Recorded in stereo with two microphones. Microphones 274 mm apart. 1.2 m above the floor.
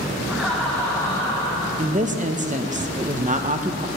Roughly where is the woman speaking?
Right.